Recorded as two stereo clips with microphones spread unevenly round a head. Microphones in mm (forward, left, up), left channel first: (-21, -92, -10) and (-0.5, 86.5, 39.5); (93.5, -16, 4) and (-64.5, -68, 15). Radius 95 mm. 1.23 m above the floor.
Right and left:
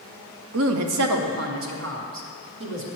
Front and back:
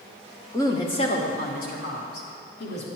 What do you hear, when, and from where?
0.5 s a woman speaking: 90° left, 0.7 m; by 2.9 s 55° left, 1.8 m